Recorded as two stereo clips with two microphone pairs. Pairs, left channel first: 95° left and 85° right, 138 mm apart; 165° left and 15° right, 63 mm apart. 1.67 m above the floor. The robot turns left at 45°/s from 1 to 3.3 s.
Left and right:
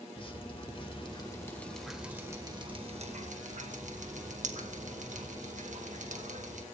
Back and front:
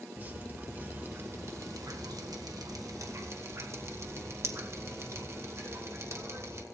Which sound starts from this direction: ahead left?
Dripping, at 0.2 s.